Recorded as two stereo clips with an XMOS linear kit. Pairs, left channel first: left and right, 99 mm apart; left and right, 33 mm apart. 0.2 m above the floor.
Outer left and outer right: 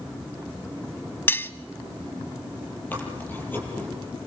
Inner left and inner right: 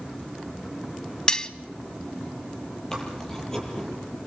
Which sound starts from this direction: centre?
Chewing, at 2.9 s.